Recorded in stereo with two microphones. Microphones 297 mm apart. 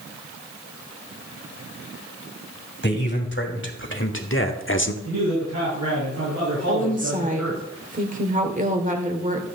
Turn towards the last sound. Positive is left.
turn(degrees=-25)  # may be behind; listen again after turning